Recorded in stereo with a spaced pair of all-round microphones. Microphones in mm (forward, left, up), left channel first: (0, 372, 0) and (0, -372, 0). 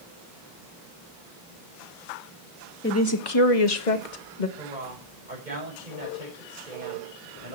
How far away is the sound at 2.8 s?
About 1.6 m.